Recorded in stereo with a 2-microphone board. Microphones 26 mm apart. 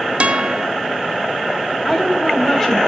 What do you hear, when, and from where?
0.2 s a guitar: 50° right (ahead or behind), 0.7 m
1.9 s a woman speaking: 10° left (ahead or behind), 3.5 m